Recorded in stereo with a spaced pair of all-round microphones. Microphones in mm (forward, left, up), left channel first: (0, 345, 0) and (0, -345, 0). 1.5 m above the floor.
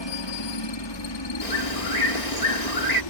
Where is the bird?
70° left (ahead or behind).